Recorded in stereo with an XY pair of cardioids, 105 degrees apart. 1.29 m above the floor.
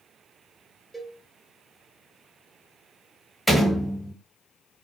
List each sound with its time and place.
0.9 s a cowbell: 5° right, 0.5 m
3.5 s a door slam: 5° right, 1.1 m